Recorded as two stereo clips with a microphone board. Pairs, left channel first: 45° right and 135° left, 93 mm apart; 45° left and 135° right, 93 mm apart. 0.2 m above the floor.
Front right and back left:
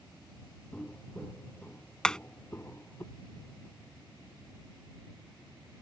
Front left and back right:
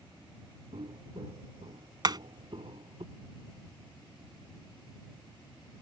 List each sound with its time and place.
0.7 s footsteps: 120° right; by 3.0 s 105° right
2.0 s hammering: 125° right